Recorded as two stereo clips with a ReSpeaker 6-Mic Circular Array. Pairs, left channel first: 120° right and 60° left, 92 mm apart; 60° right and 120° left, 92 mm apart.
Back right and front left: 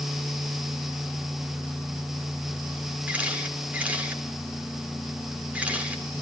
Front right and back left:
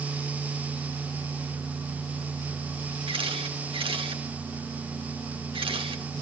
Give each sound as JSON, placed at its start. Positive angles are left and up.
{"t": 3.1, "sound": "a camera shutter", "azimuth_deg": 135, "distance_m": 2.5}